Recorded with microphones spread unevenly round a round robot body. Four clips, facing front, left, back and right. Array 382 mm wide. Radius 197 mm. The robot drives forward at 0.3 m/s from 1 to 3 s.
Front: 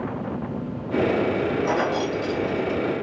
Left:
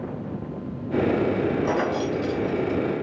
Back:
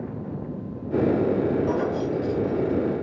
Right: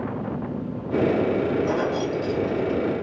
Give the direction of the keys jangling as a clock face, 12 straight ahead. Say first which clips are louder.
Even, front 1 dB; 11 o'clock.